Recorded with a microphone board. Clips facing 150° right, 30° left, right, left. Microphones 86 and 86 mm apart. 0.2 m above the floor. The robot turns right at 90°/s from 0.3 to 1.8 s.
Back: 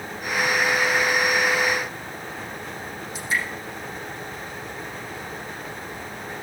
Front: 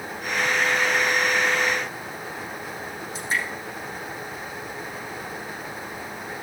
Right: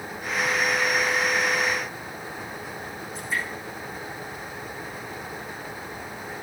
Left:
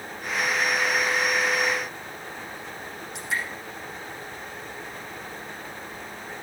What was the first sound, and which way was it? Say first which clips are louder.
Dripping: back 1 dB, even; 90° left.